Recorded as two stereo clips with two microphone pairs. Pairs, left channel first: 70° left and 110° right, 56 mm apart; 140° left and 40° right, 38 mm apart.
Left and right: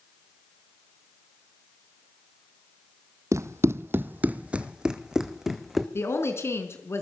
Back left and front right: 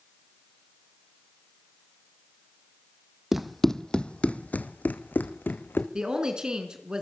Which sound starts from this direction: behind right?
Running footsteps, at 3.3 s.